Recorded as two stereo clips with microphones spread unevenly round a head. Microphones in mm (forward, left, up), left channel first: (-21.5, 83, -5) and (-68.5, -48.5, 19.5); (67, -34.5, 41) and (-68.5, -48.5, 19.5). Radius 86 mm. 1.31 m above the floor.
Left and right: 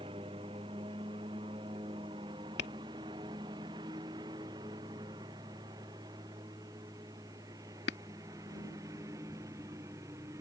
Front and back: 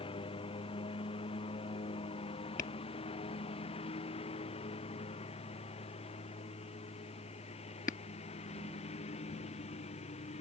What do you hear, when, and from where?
0.0 s a lawn mower: 45° right; by 10.4 s 35° right
2.6 s tapping: 50° left